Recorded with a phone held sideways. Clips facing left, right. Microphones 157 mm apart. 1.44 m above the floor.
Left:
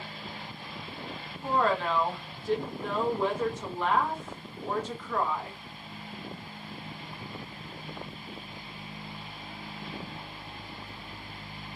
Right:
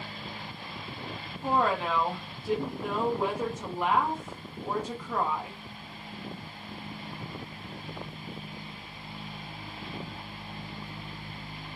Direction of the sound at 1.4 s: 10° right (ahead or behind).